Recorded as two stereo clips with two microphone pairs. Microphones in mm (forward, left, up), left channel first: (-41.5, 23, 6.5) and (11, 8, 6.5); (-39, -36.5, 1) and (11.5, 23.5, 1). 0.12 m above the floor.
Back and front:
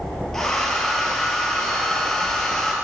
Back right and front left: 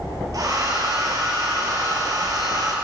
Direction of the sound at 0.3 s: 85° left.